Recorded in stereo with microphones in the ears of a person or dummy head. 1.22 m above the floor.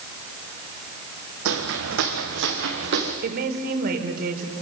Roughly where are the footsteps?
Right.